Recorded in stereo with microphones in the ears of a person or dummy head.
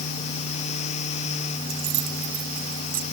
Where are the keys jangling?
50° right (ahead or behind); by 3.0 s 45° right (ahead or behind).